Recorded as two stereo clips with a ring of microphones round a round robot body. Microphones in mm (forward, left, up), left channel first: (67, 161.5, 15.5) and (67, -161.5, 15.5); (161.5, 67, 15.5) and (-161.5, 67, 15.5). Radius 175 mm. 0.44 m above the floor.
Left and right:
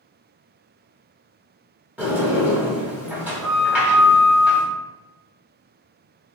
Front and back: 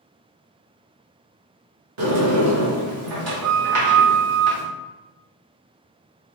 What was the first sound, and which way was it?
A sliding door, 175° right.